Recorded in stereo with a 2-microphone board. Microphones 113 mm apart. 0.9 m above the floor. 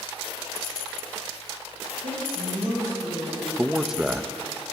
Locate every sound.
2.0 s a woman speaking: 80° right, 5 m
3.6 s a man speaking: 5° right (ahead or behind), 0.5 m